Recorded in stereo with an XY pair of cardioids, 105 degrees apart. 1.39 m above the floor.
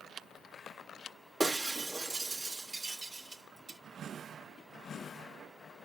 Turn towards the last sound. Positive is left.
turn(degrees=-30)